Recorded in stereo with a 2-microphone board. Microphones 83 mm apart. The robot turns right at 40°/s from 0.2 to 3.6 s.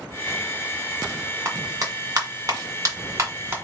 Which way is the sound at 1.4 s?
35° right (ahead or behind).